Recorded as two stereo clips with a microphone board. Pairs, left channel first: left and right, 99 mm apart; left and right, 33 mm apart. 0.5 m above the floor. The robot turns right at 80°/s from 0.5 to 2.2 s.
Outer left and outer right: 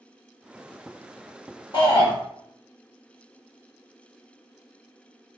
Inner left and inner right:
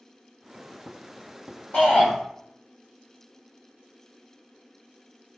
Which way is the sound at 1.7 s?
85° left.